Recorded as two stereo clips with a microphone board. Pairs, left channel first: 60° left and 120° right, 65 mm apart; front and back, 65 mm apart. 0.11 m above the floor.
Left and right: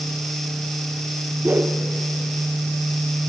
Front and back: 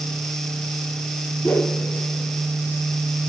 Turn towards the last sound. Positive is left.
turn(degrees=-55)